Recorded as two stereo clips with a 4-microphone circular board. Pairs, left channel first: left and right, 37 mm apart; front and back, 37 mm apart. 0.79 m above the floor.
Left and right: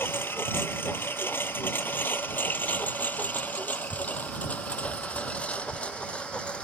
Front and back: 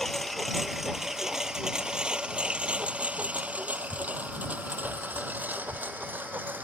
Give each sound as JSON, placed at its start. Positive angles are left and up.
{"t": 0.0, "sound": "a lawn mower", "azimuth_deg": 85}